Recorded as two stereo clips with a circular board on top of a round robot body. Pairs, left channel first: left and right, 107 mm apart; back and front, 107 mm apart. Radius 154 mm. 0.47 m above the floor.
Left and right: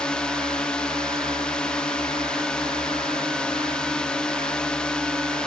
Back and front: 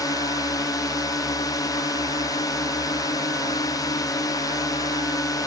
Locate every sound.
0.0 s a drone: 165° left